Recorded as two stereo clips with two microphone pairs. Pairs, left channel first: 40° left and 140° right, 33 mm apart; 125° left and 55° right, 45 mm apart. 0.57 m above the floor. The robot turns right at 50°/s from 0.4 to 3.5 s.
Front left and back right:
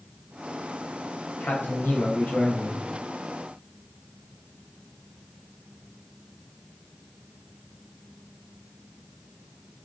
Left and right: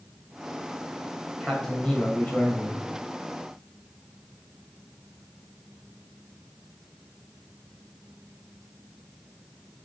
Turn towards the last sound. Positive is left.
turn(degrees=140)